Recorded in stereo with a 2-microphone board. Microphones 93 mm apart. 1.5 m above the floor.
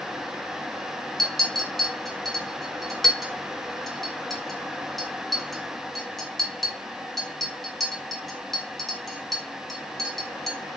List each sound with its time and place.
1.2 s a clink: centre (ahead or behind), 0.6 m